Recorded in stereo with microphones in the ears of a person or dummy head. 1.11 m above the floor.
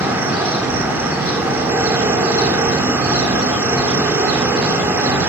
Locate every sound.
0.0 s an insect: 10° right (ahead or behind), 2.5 m